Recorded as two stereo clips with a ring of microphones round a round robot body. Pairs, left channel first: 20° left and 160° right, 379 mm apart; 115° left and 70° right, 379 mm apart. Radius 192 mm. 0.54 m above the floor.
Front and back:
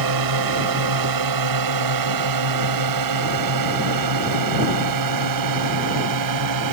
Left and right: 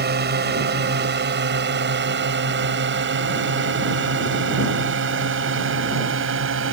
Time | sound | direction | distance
0.0 | a drone | 130° right | ?